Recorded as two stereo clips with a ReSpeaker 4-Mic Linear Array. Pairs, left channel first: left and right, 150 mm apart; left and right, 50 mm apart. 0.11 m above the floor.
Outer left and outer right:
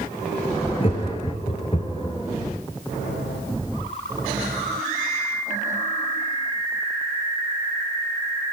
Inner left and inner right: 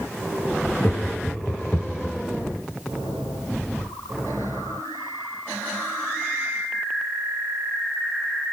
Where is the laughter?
40° left (ahead or behind), 1.4 m.